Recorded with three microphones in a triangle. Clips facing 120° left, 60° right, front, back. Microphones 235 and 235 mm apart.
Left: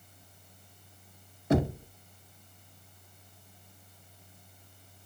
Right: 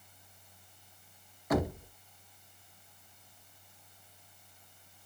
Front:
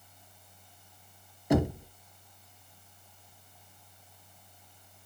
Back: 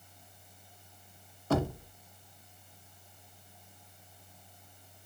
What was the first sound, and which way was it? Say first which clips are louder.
Knocking: left 4 dB, front 4 dB; 65° left.